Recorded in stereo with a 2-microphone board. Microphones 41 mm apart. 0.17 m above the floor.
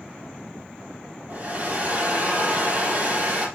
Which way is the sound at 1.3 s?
40° right (ahead or behind).